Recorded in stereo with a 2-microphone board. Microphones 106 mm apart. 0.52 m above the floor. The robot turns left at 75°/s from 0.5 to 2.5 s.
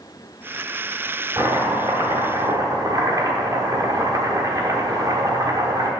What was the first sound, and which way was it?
Chopping, 40° right.